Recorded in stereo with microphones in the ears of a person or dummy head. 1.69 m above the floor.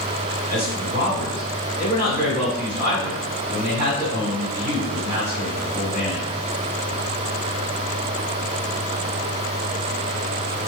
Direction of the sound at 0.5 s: 50° right (ahead or behind).